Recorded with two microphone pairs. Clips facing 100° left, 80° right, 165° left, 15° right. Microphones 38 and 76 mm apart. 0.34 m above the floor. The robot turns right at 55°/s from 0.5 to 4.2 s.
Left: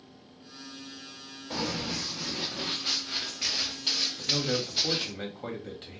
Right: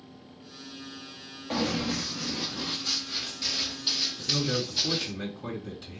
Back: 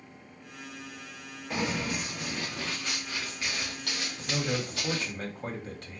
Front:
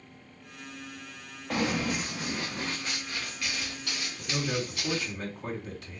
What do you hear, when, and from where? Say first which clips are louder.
1.5 s running footsteps: right 4 dB, front 3 dB; 35° right, 2 m; by 5.1 s 165° left, 2.5 m
4.2 s a man speaking: right 1 dB, even; 135° left, 1.9 m; by 6.0 s 140° left, 1.9 m